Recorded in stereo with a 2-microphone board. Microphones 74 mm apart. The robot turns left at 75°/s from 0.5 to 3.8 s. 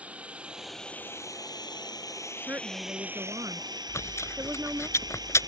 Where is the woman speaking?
25° right; by 4.9 s 130° right.